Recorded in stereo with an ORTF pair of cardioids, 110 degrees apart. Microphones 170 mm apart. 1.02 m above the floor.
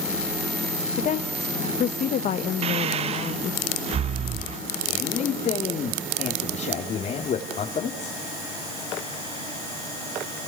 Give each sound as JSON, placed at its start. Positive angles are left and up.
{"t": 1.0, "sound": "a woman speaking", "azimuth_deg": 50, "distance_m": 0.8}
{"t": 2.6, "sound": "breathing", "azimuth_deg": -35, "distance_m": 0.7}
{"t": 4.9, "sound": "a man speaking", "azimuth_deg": 45, "distance_m": 2.5}